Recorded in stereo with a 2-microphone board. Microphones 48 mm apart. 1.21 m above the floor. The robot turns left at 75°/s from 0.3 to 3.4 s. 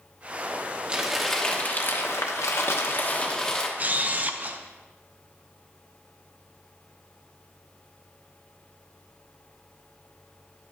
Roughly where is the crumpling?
Behind.